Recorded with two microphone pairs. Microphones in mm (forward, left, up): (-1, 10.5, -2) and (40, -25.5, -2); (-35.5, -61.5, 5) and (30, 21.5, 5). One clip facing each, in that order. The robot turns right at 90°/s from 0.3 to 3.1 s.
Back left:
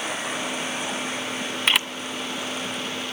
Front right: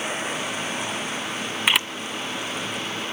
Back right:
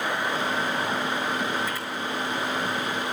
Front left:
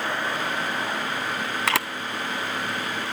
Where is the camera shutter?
40° left, 0.5 m; by 1.9 s 55° left, 0.5 m.